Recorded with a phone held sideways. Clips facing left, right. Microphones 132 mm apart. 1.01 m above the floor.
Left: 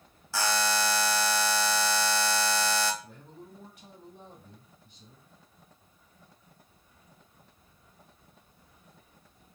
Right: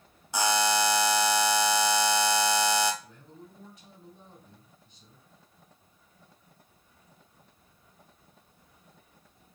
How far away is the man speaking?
About 2.5 m.